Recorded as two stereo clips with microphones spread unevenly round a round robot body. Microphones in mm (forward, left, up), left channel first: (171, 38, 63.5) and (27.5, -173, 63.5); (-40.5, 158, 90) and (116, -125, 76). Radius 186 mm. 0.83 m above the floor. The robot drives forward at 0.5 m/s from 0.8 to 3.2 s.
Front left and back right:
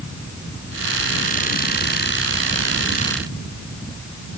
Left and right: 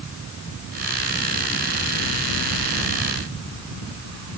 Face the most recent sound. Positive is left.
No sound to turn to.